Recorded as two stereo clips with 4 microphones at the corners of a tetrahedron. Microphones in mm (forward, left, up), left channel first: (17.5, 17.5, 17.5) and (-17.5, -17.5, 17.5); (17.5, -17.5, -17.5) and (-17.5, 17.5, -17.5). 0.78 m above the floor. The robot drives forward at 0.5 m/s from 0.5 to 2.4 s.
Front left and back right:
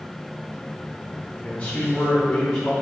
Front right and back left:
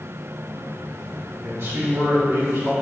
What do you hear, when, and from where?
1.4 s a man speaking: 110° left, 2.5 m; by 2.7 s 120° left, 3 m